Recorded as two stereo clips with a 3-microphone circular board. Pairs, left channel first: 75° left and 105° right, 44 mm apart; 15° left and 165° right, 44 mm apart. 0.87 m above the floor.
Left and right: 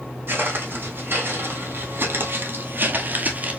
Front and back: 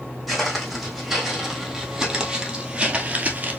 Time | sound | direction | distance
0.3 | footsteps | 75° right | 2.5 m